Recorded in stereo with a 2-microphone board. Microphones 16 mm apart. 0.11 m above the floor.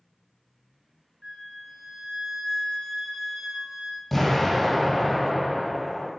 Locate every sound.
1.2 s a flute: 30° right (ahead or behind), 1.5 m
4.1 s an explosion: 5° left (ahead or behind), 1.8 m